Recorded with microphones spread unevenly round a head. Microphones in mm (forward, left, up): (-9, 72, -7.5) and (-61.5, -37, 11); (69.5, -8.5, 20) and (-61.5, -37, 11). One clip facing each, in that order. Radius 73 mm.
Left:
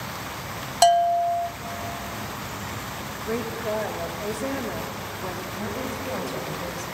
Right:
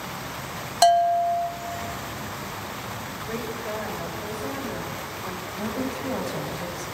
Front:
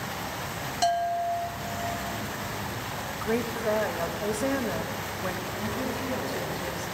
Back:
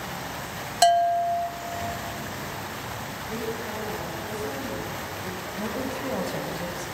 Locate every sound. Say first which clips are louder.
0.8 s a bell: even, back 6 dB; 150° left, 1.0 m
3.1 s a woman speaking: left 4 dB, front 5 dB; 10° left, 2 m
5.6 s a woman speaking: right 4 dB, back 3 dB; 155° left, 7 m